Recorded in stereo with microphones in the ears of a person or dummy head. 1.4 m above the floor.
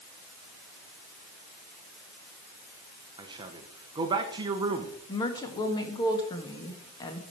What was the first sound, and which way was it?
A man speaking, 25° right (ahead or behind).